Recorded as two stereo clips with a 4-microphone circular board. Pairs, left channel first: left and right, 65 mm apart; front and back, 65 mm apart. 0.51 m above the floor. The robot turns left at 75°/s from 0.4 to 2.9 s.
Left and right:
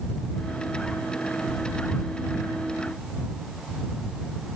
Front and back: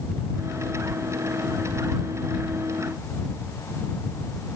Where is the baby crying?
I don't hear a baby crying.